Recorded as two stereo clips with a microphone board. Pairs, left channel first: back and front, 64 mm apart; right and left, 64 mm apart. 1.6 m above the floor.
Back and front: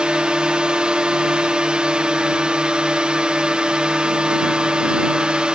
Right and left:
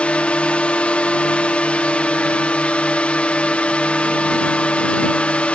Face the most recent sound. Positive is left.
turn(degrees=-55)